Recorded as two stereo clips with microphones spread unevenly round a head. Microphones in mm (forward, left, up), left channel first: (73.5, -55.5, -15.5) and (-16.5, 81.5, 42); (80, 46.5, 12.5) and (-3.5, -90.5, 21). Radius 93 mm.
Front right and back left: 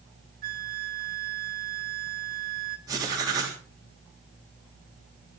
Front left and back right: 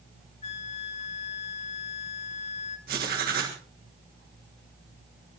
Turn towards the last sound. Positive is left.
turn(degrees=-165)